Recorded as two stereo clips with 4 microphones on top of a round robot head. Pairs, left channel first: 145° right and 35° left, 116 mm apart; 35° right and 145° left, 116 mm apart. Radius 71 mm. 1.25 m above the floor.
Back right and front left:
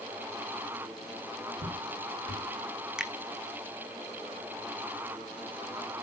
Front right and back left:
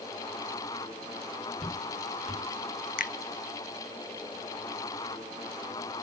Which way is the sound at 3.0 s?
50° right.